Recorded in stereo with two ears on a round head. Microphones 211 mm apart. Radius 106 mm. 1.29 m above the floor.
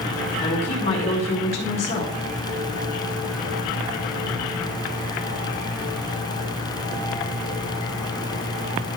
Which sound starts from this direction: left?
A woman speaking, at 0.4 s.